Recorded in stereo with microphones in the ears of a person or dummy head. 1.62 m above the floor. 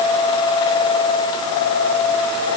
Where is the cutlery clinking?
No cutlery clinking in this recording.